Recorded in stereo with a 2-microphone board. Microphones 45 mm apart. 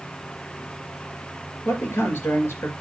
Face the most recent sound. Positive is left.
turn(degrees=70)  # may be behind; listen again after turning